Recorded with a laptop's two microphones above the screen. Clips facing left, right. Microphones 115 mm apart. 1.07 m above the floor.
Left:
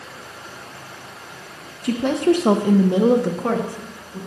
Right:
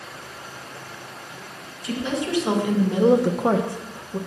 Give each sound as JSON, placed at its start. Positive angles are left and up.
{"t": 1.8, "sound": "a woman speaking", "side_deg": 60, "distance_m": 1.0}